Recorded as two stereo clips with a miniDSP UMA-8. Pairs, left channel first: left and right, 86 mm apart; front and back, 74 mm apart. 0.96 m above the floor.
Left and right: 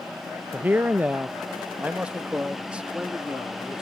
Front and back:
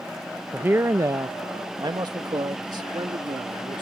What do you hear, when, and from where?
0.5 s a man speaking: 135° right; by 3.8 s 170° right